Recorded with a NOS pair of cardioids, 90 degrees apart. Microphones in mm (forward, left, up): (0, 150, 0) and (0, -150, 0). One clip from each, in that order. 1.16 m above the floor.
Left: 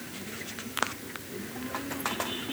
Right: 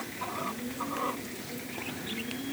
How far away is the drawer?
No drawer in this recording.